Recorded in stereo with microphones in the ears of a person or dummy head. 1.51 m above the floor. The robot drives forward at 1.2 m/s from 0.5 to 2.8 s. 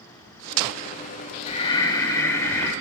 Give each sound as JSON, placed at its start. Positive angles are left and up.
{"t": 1.5, "sound": "breathing", "side_deg": 35, "distance_m": 0.8}